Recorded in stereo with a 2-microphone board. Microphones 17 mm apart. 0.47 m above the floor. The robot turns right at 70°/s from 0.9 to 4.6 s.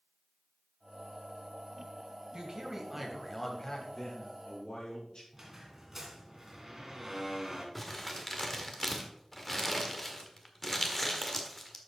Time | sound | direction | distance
2.3 | a man speaking | 65° right | 2.5 m
4.0 | a man speaking | 25° left | 5.5 m
5.3 | a squeak | 25° right (ahead or behind) | 2.5 m
7.8 | crumpling | 15° left (ahead or behind) | 1.6 m